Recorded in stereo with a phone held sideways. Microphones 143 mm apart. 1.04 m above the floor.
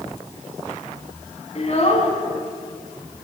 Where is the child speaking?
50° left (ahead or behind), 5.5 m.